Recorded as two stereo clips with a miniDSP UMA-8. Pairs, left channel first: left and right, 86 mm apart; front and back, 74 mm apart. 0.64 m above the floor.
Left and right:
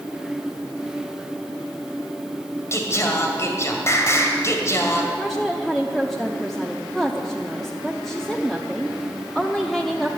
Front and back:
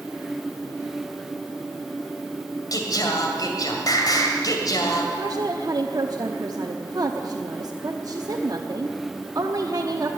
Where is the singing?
35° left, 2 m.